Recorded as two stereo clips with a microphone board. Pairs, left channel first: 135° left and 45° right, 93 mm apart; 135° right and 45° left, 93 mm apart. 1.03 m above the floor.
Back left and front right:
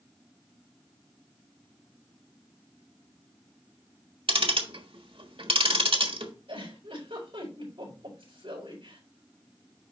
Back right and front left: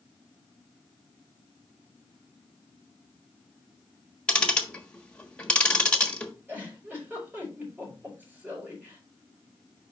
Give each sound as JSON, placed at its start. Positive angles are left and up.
{"t": 4.3, "sound": "ticking", "azimuth_deg": -55, "distance_m": 1.3}
{"t": 6.5, "sound": "a giggle", "azimuth_deg": -25, "distance_m": 5.5}